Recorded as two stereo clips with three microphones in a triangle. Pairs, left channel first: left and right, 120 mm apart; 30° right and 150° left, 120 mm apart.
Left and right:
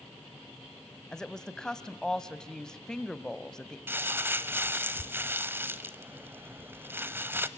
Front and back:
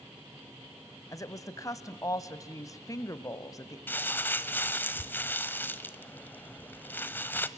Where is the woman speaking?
10° left, 1.2 m.